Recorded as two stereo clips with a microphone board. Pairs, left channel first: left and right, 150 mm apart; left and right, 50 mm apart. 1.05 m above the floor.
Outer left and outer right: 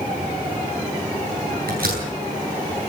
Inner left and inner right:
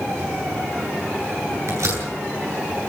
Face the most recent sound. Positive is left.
turn(degrees=-75)  # may be behind; listen again after turning